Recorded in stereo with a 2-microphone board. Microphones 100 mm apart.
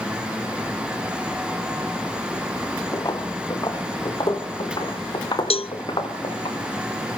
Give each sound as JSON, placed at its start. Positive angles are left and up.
{"t": 2.9, "sound": "footsteps", "side_deg": 40, "distance_m": 2.5}
{"t": 5.5, "sound": "a cowbell", "side_deg": 80, "distance_m": 0.6}